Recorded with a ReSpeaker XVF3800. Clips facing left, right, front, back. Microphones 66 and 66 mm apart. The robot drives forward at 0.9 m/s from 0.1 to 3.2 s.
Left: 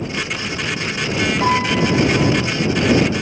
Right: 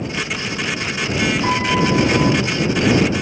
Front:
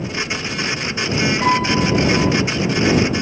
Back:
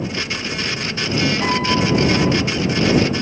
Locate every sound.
1.4 s a piano: 70° left, 3 m; by 2.3 s 85° left, 3 m